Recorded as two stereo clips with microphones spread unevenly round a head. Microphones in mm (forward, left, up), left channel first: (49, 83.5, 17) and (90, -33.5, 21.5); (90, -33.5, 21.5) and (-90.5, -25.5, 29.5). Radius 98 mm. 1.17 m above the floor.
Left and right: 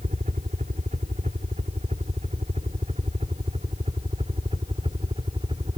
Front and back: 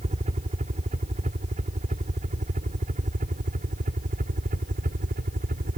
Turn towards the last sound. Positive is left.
turn(degrees=-140)